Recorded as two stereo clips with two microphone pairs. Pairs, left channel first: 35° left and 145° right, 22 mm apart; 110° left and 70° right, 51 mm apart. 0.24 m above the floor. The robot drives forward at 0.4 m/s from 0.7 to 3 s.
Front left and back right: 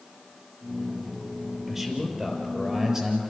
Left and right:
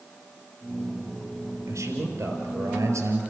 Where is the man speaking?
75° right, 4.5 m; by 3.2 s 85° right, 4.5 m.